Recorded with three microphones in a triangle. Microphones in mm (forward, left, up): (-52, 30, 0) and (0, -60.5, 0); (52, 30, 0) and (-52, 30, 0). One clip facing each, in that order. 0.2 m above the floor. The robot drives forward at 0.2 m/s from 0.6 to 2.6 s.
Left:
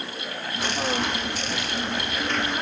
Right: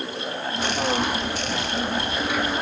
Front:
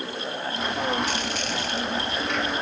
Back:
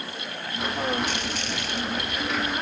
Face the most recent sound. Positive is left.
No sound to turn to.